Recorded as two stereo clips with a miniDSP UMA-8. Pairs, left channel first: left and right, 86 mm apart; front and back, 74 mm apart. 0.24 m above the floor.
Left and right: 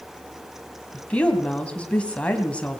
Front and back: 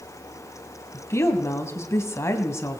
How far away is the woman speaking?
About 1.8 m.